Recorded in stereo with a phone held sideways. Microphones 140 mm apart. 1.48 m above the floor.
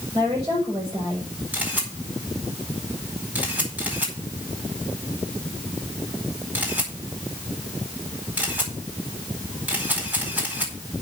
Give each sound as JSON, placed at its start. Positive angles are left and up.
{"t": 0.1, "sound": "a woman speaking", "side_deg": -30, "distance_m": 5.5}
{"t": 1.5, "sound": "a camera shutter", "side_deg": -15, "distance_m": 4.5}